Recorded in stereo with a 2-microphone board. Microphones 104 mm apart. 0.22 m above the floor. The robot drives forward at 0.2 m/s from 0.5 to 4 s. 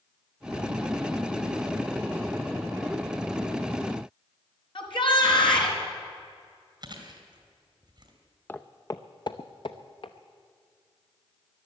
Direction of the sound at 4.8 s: 50° left (ahead or behind).